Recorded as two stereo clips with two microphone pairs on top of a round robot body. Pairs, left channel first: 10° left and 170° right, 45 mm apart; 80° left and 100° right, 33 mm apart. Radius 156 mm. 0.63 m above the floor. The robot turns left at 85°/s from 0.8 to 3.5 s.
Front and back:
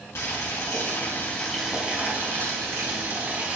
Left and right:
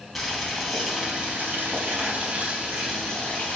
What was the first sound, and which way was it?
Boiling, 10° right.